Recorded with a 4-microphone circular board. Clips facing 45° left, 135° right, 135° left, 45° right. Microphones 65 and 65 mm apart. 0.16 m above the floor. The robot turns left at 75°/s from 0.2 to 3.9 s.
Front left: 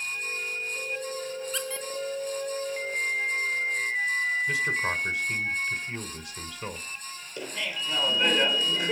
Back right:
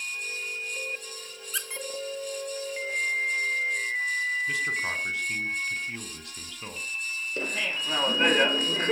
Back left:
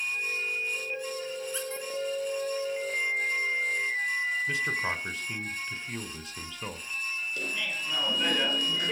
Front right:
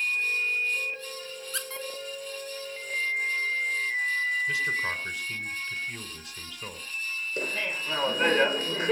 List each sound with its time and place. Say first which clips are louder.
1.5 s a squeak: front left 3 dB, back left 1 dB; 50° right, 1.9 m; by 1.9 s 75° right, 1.9 m
4.5 s a man speaking: front left 2 dB, front right 1 dB; 110° left, 1.5 m
7.4 s laughter: back right 1 dB, front right 6 dB; 95° right, 1.9 m